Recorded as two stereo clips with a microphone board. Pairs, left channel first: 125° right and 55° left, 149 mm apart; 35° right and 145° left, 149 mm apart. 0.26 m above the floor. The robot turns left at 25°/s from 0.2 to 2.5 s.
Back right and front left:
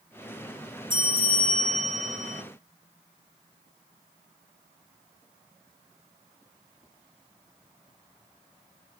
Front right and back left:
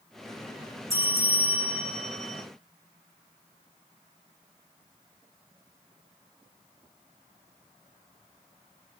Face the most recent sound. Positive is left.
turn(degrees=45)